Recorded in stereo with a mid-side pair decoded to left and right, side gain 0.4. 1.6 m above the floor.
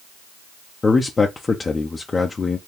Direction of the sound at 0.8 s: 35° left.